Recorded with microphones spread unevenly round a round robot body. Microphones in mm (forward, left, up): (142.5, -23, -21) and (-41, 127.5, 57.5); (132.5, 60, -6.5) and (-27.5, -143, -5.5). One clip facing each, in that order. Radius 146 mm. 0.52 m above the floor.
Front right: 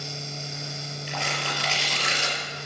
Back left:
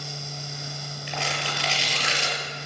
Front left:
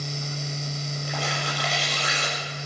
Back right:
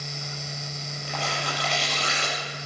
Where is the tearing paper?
140° left, 5.5 m.